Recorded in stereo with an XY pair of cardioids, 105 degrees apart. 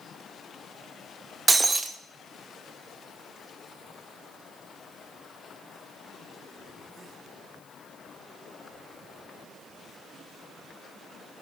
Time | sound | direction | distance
1.5 | breaking glass | 25° right | 0.7 m